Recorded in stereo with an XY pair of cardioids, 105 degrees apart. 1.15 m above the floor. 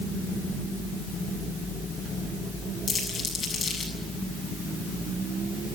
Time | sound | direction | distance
2.9 | crumpling | 40° left | 7.5 m